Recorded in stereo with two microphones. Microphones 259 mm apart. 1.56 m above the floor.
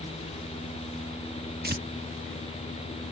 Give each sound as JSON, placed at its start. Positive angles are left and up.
{"t": 1.6, "sound": "tearing paper", "side_deg": -35}